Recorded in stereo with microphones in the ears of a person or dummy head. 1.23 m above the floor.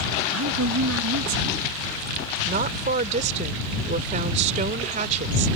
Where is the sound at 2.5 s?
35° right (ahead or behind).